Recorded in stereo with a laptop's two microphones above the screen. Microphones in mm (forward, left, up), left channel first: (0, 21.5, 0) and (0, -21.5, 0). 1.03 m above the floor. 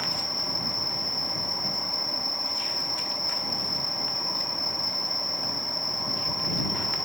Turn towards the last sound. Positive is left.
turn(degrees=0)  # may be behind; listen again after turning